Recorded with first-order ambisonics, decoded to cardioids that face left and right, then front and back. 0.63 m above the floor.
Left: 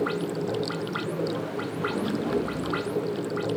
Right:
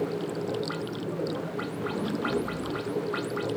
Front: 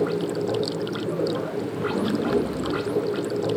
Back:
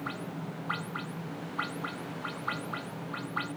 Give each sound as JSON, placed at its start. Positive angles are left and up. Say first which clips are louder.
{"t": 0.0, "sound": "running water", "louder": "left 3 dB, front 14 dB", "azimuth_deg": 5}